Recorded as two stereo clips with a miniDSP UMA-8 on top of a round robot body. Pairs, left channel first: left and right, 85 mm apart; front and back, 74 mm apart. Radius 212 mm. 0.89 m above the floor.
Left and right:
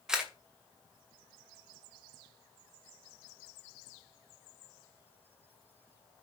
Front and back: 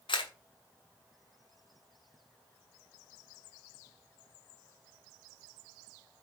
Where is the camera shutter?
10° right, 2.5 m.